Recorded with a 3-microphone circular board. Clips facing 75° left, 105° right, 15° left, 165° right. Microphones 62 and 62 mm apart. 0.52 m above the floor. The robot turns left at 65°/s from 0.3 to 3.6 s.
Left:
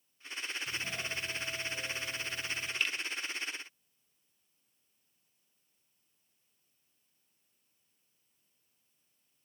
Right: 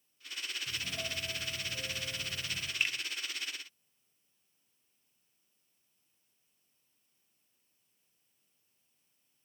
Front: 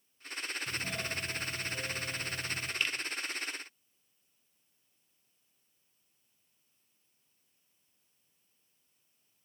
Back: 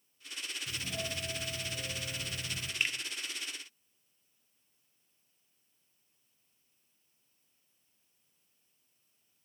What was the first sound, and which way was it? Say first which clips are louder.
A doorbell: left 1 dB, back 1 dB; 15° left.